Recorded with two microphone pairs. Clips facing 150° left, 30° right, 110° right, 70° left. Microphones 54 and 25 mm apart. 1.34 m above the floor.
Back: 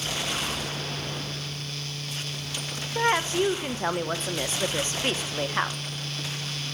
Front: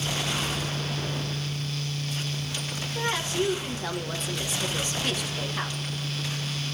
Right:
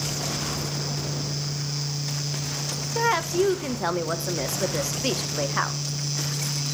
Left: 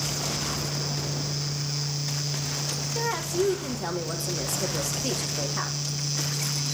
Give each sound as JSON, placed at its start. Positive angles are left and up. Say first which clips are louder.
{"t": 3.0, "sound": "a woman speaking", "louder": "back 5 dB, right 6 dB", "azimuth_deg": -155, "distance_m": 1.2}